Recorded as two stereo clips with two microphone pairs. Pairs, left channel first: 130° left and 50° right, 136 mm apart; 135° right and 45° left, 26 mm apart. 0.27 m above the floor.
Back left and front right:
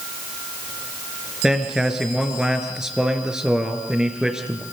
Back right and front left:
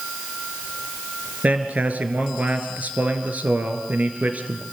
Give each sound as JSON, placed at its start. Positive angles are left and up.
{"t": 1.4, "sound": "a man speaking", "azimuth_deg": 35, "distance_m": 3.5}